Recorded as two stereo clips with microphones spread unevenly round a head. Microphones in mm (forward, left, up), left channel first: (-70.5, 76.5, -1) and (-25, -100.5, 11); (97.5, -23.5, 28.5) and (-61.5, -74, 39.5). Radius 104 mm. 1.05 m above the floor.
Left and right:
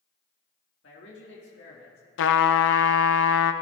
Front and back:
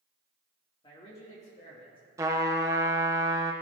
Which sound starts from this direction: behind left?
A trumpet, at 2.2 s.